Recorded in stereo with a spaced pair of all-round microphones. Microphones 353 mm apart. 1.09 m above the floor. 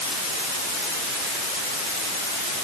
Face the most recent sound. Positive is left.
No sound to turn to.